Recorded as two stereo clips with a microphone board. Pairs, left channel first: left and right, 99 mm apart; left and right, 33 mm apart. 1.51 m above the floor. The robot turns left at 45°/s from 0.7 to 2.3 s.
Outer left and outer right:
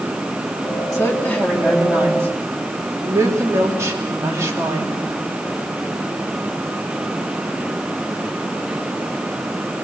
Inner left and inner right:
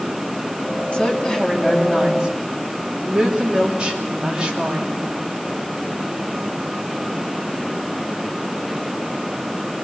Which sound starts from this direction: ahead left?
A woman speaking, at 0.9 s.